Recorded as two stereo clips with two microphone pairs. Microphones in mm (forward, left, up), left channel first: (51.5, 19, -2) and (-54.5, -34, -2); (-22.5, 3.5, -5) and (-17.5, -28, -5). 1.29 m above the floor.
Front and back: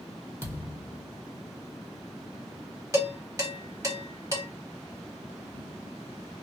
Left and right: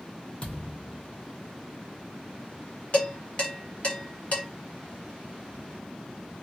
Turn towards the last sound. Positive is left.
turn(degrees=145)